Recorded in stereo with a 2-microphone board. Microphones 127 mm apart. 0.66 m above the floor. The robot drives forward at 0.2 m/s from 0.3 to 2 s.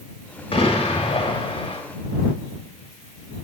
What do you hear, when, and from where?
0.5 s an explosion: 45° left (ahead or behind), 1.1 m; by 1.8 s 40° left (ahead or behind), 1.2 m